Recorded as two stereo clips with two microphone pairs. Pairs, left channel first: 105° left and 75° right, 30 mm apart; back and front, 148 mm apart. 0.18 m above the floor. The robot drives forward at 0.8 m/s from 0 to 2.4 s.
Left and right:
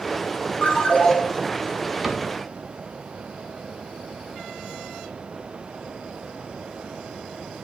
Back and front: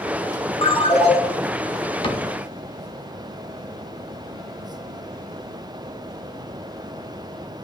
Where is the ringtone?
135° left, 1.2 m; by 1.2 s 145° left, 1.5 m.